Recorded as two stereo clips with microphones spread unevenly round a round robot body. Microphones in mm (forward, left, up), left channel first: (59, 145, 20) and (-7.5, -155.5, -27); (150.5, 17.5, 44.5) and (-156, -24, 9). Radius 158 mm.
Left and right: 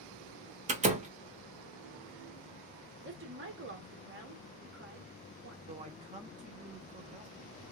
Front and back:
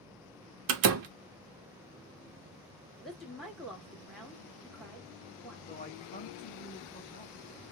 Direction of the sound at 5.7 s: 60° right.